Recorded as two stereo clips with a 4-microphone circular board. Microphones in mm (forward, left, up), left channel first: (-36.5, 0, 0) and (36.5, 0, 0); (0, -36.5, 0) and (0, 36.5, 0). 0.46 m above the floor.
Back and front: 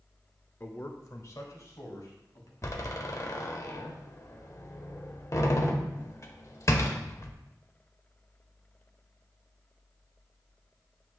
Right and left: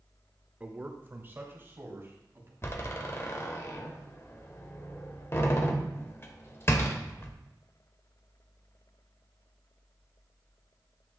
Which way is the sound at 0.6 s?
145° left.